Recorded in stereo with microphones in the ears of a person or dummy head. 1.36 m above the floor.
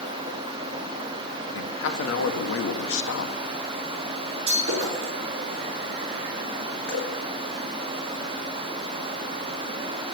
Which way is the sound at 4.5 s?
30° right (ahead or behind).